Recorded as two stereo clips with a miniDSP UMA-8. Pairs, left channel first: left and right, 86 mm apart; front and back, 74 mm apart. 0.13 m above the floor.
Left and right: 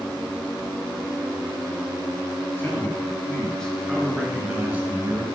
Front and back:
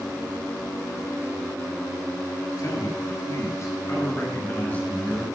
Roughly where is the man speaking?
Ahead left.